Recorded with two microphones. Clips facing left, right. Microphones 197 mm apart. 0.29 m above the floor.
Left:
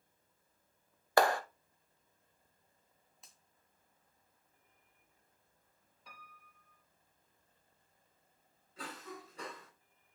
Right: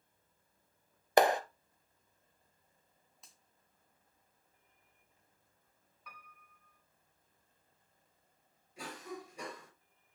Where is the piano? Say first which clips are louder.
Right 1 dB; 30° left (ahead or behind), 1.9 m.